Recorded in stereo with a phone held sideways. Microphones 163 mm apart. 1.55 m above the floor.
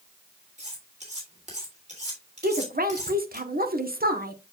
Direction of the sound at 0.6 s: 45° right (ahead or behind).